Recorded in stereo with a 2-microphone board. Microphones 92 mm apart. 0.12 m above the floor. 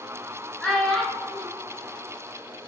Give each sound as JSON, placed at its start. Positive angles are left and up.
{"t": 0.6, "sound": "a child speaking", "side_deg": 5, "distance_m": 0.8}